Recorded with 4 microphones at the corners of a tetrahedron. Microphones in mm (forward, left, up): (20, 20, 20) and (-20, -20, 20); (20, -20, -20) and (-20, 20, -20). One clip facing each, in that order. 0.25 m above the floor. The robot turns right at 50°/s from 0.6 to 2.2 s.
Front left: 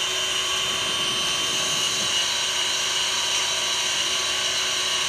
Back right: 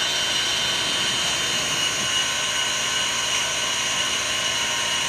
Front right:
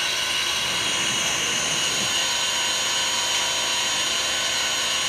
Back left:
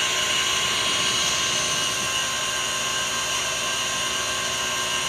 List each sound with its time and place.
0.0 s an engine running: 150° right, 3.5 m; by 5.1 s 70° right, 3.5 m